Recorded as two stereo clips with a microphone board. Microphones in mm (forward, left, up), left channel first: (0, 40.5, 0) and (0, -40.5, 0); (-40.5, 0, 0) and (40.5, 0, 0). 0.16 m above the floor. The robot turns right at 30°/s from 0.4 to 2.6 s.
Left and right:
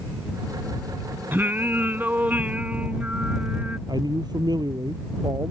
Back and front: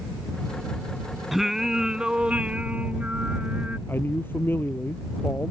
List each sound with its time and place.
1.3 s singing: 85° right; by 3.8 s 45° right
3.9 s a man speaking: 120° right